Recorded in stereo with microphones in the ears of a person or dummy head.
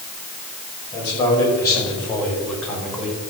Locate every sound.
0.9 s a man speaking: 30° left (ahead or behind), 6 m; by 3.2 s centre (ahead or behind), 5 m